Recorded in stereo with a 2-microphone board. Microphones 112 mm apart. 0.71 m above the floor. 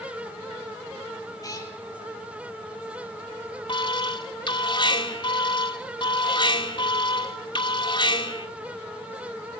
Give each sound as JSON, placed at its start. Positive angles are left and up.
{"t": 1.4, "sound": "a cat meowing", "side_deg": 30, "distance_m": 4.5}
{"t": 3.7, "sound": "an alarm", "side_deg": 45, "distance_m": 3.0}